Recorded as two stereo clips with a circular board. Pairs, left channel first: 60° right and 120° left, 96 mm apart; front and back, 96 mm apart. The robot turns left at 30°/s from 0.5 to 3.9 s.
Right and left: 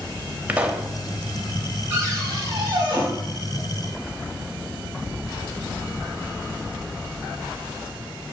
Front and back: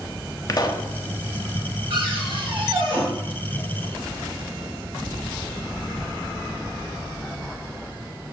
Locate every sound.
0.5 s a pop: 45° left, 0.6 m; by 0.9 s 35° left, 0.6 m
1.9 s a cupboard door: straight behind, 2.5 m; by 3.0 s 145° left, 2.5 m